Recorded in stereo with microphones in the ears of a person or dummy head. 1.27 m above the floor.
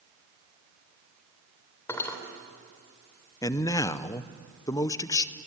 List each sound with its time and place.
1.9 s cutlery clinking: 15° left (ahead or behind), 3 m
3.4 s a man speaking: 15° left (ahead or behind), 0.7 m